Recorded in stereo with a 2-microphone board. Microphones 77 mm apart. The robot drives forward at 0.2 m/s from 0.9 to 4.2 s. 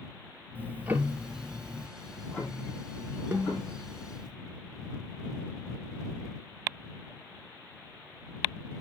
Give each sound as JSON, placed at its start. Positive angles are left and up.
{"t": 0.6, "sound": "ticking", "side_deg": -25, "distance_m": 1.0}
{"t": 2.0, "sound": "ticking", "side_deg": 15, "distance_m": 4.5}
{"t": 3.3, "sound": "a snare drum", "side_deg": -30, "distance_m": 1.2}